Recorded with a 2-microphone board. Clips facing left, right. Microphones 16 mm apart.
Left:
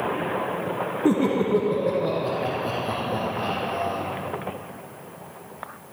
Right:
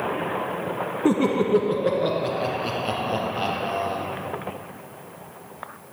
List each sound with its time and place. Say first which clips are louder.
1.1 s laughter: right 1 dB; 15° right (ahead or behind), 1.2 m; by 4.0 s 65° right (ahead or behind), 4 m